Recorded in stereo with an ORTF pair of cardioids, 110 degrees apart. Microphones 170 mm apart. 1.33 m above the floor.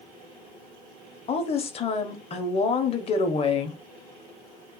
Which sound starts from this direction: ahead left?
A woman speaking, at 1.3 s.